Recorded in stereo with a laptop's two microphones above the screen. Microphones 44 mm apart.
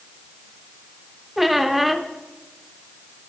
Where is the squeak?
Centre (ahead or behind), 0.6 m.